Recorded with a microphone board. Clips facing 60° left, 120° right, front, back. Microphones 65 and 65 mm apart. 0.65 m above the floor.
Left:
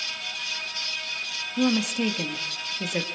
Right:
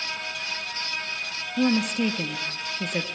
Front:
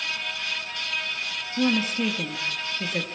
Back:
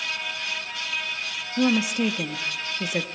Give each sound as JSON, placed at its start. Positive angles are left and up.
{"t": 1.6, "sound": "a woman speaking", "azimuth_deg": 135, "distance_m": 1.1}